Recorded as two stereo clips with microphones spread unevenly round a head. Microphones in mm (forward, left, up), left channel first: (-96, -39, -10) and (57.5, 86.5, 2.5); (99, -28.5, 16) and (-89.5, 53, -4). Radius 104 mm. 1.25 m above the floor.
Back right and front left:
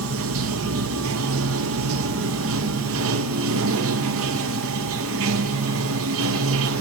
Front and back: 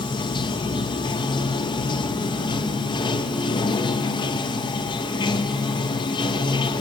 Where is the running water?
45° left, 0.8 m.